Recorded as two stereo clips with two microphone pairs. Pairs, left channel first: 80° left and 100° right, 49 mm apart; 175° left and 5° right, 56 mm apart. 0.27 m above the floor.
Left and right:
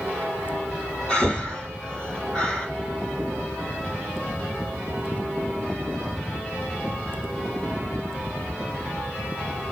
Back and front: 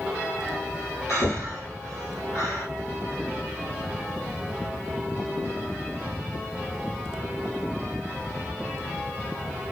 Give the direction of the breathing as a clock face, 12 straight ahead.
7 o'clock.